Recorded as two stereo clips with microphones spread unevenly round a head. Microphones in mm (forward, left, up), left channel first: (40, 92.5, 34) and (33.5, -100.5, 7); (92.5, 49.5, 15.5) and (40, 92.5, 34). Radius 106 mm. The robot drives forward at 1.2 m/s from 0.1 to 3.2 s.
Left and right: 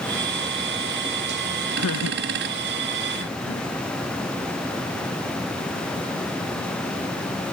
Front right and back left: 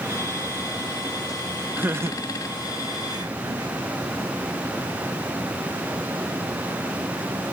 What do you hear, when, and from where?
1.8 s laughter: 80° left; by 3.7 s 125° left